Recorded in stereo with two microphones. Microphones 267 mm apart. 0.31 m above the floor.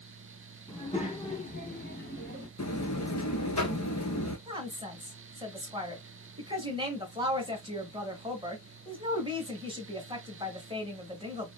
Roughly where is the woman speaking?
Centre.